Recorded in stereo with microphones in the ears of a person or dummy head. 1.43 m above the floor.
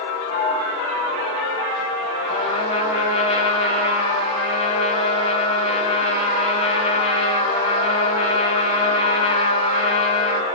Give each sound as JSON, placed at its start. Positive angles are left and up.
{"t": 0.3, "sound": "a sliding door", "side_deg": 40, "distance_m": 3.0}
{"t": 2.3, "sound": "a trumpet", "side_deg": 35, "distance_m": 5.5}